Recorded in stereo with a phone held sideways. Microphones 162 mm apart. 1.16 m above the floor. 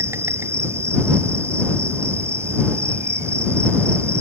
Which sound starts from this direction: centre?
An insect, at 0.0 s.